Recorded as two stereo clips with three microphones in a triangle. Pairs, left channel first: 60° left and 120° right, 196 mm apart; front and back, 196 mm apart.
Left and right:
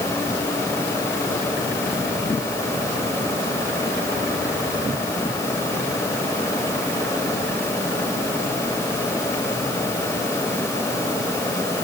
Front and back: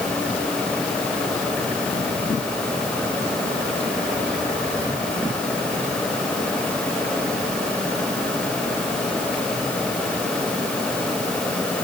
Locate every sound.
Only background noise.